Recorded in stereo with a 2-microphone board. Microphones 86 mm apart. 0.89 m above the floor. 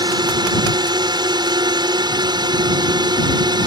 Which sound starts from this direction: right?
A drone, at 0.0 s.